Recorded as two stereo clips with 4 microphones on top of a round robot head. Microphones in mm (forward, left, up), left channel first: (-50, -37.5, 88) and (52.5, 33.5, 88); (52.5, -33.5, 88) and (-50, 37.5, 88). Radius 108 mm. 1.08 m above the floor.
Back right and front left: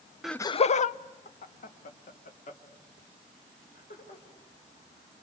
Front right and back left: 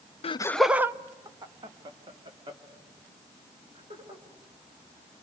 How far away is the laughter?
About 0.5 m.